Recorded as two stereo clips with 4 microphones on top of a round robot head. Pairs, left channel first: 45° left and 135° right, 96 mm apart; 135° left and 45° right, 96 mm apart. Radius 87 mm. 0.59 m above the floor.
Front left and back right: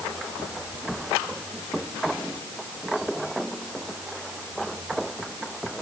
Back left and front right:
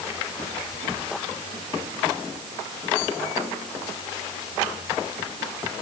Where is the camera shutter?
I don't hear a camera shutter.